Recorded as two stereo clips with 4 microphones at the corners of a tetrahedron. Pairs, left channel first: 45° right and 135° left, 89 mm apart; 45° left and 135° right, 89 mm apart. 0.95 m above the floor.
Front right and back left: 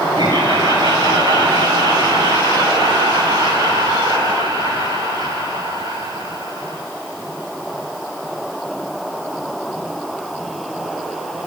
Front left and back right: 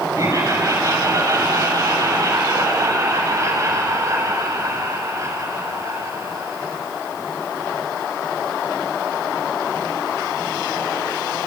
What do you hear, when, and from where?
0.2 s laughter: 170° left, 9 m